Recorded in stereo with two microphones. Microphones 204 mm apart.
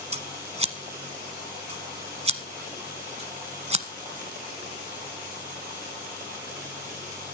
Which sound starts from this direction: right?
Scissors, at 0.1 s.